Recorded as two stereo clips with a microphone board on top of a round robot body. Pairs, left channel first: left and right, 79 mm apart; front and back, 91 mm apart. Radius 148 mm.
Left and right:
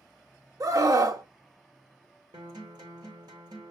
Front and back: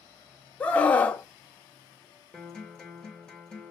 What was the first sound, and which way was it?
A scream, 70° right.